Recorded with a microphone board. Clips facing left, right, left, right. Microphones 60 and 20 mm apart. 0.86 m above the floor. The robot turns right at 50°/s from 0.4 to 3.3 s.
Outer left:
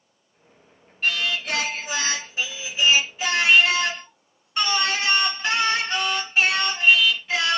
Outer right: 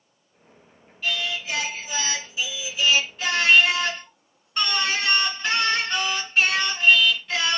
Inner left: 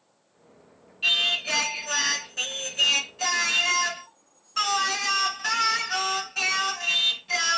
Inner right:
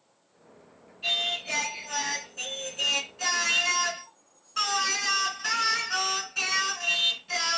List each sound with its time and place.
1.0 s singing: 55° left, 1.5 m; by 7.6 s 170° left, 1.5 m